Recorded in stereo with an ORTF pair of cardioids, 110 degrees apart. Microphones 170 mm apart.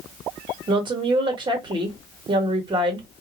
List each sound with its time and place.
0.7 s a woman speaking: 30° right, 1.3 m